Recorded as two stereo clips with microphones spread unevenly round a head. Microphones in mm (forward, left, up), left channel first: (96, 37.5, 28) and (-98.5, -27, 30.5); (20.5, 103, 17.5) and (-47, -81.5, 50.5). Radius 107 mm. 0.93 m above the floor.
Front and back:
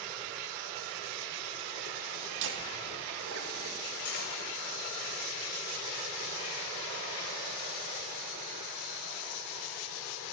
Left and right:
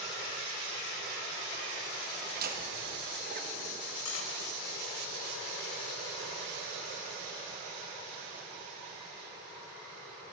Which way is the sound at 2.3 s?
155° right.